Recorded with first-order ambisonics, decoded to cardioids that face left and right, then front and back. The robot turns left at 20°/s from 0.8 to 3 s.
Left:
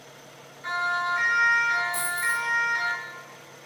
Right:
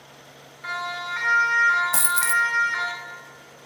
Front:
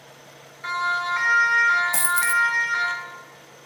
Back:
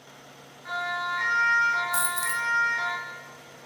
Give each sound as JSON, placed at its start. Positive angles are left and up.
{"t": 0.6, "sound": "a siren", "azimuth_deg": -15, "distance_m": 7.0}
{"t": 1.9, "sound": "a dropped coin", "azimuth_deg": -65, "distance_m": 1.1}